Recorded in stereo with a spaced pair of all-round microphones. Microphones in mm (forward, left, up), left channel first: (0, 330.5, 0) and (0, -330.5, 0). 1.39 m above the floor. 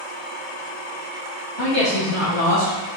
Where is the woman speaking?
40° left (ahead or behind), 2 m.